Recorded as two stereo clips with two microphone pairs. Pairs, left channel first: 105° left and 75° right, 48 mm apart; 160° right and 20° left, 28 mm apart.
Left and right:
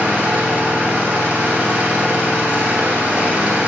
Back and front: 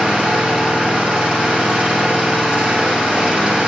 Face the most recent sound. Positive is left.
turn(degrees=-20)